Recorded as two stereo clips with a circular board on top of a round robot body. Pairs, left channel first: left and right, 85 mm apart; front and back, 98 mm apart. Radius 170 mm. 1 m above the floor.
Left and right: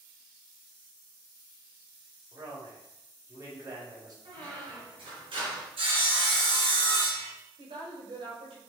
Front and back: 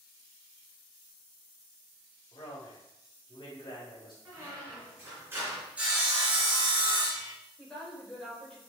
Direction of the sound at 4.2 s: 110° right.